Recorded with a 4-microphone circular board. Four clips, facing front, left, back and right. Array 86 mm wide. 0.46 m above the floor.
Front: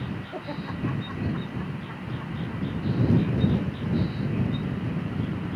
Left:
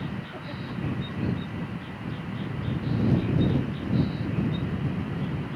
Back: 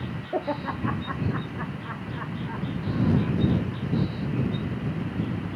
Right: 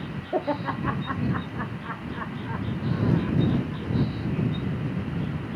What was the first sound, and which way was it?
Laughter, 120° right.